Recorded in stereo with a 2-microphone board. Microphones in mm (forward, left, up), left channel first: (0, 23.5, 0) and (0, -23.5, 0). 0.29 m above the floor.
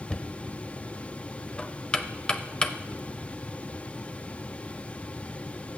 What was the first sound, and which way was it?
Knocking, 20° left (ahead or behind).